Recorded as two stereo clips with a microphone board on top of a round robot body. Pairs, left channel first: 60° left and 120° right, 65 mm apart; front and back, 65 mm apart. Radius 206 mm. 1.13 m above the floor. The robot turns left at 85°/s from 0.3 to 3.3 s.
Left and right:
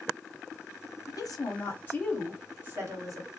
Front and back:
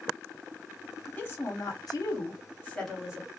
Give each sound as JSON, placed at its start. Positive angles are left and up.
{"t": 1.1, "sound": "a woman speaking", "azimuth_deg": 70, "distance_m": 1.4}